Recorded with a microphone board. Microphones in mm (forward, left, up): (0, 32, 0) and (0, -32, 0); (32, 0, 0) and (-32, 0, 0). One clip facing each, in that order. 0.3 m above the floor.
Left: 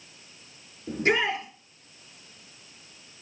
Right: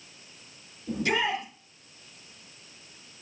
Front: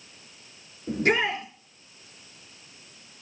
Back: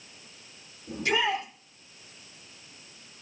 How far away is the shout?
About 5.5 m.